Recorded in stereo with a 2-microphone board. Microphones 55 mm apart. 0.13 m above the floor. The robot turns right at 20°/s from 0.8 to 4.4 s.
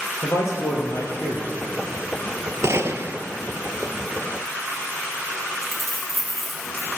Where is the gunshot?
65° right (ahead or behind), 0.6 m; by 3.2 s 55° right (ahead or behind), 0.6 m.